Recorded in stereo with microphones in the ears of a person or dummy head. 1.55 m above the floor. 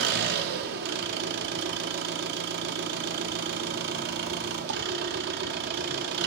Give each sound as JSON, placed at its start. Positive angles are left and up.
{"t": 0.0, "sound": "an engine running", "side_deg": -55, "distance_m": 0.8}